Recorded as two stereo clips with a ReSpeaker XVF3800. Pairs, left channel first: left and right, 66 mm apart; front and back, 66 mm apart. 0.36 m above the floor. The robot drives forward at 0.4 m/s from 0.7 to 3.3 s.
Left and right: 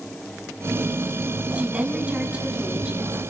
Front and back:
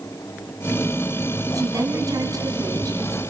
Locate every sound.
1.5 s a woman speaking: 160° right, 3.5 m; by 3.2 s 165° right, 4.5 m